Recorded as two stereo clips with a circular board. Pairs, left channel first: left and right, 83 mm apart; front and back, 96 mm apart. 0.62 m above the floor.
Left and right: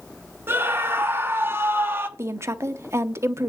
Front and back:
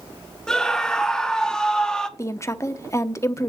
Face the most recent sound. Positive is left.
turn(degrees=-45)